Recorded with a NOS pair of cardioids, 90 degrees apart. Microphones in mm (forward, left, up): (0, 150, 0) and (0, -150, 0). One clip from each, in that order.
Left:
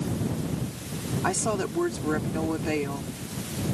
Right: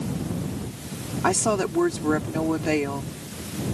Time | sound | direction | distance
1.2 | a woman speaking | 35° right | ?